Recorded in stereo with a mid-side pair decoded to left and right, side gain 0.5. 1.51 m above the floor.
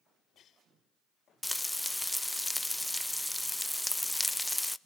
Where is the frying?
5° left, 0.6 m.